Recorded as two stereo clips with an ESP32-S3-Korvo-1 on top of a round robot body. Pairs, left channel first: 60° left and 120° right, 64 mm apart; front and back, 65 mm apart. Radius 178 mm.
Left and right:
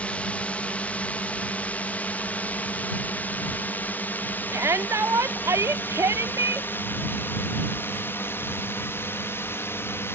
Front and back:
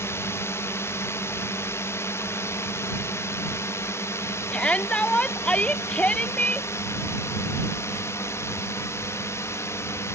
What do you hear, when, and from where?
0.0 s a drone: straight ahead; by 10.2 s 25° left
4.5 s a shout: 75° right